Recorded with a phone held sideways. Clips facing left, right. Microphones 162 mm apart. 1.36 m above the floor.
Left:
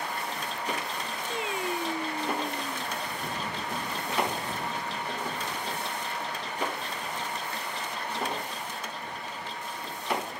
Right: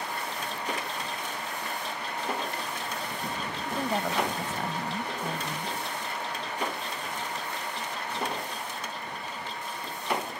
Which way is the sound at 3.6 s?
80° right.